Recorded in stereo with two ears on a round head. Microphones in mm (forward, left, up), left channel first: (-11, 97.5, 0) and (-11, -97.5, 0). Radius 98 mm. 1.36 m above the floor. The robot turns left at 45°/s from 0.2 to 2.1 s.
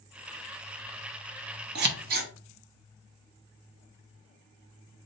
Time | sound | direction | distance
1.8 | scissors | 50° right (ahead or behind) | 0.8 m